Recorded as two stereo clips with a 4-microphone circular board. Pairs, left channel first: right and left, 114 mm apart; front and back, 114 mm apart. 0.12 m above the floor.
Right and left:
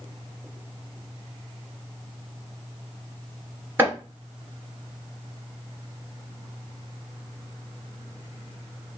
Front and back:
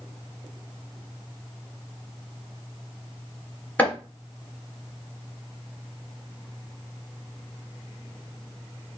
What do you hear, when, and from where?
3.8 s chopping: 50° left, 1.7 m